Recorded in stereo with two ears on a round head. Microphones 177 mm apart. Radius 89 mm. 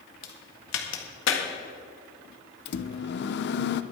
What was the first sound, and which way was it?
A crack, 70° left (ahead or behind).